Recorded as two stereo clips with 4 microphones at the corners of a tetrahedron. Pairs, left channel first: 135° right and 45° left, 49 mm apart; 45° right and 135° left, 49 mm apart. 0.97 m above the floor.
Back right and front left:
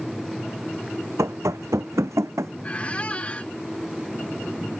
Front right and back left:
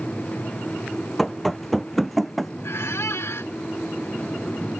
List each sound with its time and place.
1.2 s running footsteps: 40° left; by 2.5 s 45° left
2.6 s a squeak: 70° right